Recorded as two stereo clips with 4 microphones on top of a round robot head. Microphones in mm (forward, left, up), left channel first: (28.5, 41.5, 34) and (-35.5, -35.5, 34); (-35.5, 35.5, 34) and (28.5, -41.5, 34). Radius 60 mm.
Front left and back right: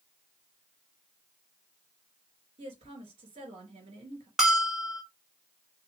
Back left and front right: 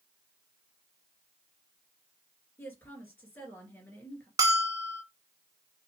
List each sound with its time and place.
2.6 s a woman speaking: 160° right, 2.5 m
4.4 s a bell: 50° right, 0.8 m